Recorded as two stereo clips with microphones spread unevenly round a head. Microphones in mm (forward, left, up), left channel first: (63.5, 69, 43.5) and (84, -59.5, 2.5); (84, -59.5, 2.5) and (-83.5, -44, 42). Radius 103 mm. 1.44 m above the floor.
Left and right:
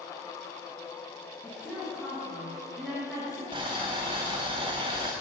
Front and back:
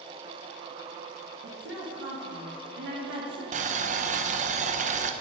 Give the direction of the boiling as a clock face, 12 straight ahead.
5 o'clock.